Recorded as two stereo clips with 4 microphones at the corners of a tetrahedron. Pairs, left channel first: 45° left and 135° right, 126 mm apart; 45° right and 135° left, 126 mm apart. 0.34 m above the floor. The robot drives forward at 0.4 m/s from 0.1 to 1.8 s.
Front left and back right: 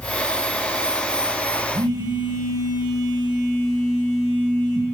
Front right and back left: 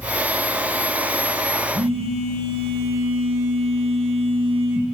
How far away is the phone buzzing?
About 5 m.